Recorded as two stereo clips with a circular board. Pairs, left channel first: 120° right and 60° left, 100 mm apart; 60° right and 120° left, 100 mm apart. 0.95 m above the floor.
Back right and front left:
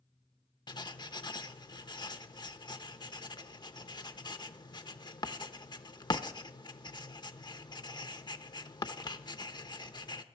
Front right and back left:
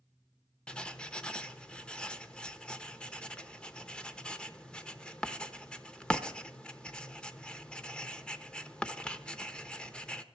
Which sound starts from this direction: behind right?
Writing, at 0.7 s.